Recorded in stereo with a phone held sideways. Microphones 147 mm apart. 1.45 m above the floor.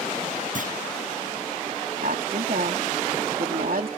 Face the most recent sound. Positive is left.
turn(degrees=-75)  # may be behind; listen again after turning